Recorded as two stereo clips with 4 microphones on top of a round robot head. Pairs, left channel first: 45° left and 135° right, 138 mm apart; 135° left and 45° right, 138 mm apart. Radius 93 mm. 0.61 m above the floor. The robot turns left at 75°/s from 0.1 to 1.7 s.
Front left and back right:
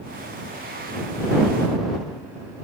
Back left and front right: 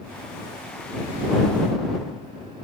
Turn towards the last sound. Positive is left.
No sound to turn to.